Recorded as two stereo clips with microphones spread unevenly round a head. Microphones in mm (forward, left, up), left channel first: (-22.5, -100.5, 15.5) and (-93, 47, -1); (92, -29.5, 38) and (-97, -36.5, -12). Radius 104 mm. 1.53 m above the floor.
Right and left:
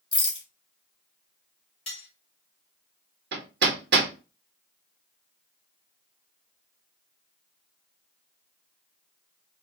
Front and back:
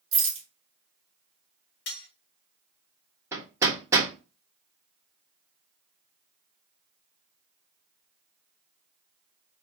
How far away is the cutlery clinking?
About 1.5 m.